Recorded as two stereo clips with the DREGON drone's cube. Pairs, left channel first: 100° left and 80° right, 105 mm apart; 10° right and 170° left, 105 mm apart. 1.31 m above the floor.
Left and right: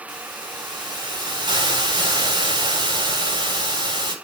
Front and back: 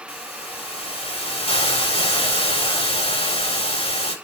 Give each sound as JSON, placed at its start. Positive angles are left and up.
{"t": 0.1, "sound": "a hiss", "azimuth_deg": -35, "distance_m": 8.0}